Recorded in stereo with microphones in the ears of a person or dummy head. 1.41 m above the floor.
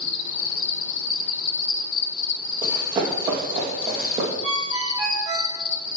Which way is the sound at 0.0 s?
70° left (ahead or behind).